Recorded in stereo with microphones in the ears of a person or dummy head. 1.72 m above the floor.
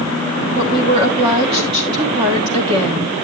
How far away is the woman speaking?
About 1.4 m.